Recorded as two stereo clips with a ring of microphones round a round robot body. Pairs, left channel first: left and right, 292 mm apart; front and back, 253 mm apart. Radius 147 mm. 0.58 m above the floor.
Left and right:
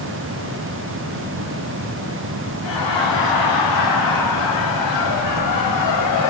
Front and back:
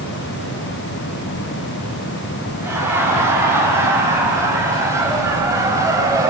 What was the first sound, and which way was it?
Laughter, 100° left.